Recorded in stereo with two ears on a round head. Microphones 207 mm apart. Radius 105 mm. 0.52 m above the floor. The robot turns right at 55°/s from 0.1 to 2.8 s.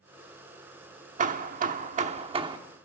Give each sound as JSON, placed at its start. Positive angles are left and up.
{"t": 1.2, "sound": "hammering", "azimuth_deg": -105, "distance_m": 1.1}